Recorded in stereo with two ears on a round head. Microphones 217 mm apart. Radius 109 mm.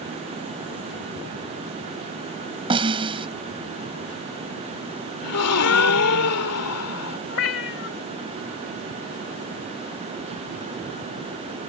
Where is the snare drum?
20° right (ahead or behind).